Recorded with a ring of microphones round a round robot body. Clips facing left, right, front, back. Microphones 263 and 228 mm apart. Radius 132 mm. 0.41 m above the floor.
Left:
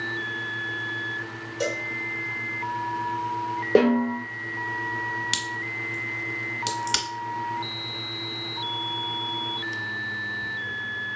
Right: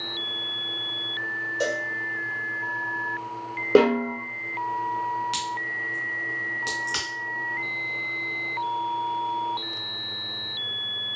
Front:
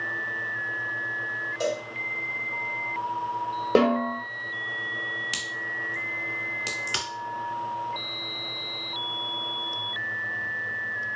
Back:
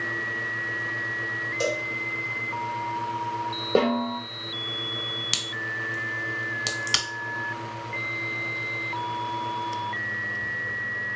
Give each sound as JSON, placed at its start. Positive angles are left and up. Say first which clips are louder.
{"t": 1.6, "sound": "a cowbell", "louder": "right 1 dB, even", "azimuth_deg": 165, "distance_m": 1.0}
{"t": 3.8, "sound": "a snare drum", "louder": "even, front 2 dB", "azimuth_deg": -35, "distance_m": 0.9}
{"t": 5.3, "sound": "a crack", "louder": "left 2 dB, back 3 dB", "azimuth_deg": 140, "distance_m": 0.9}